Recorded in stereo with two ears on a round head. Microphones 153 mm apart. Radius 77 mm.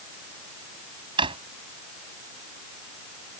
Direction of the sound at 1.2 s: 30° right (ahead or behind).